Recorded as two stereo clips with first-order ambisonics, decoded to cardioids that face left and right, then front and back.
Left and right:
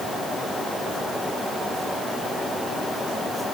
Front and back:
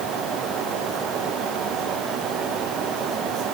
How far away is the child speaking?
I don't hear a child speaking.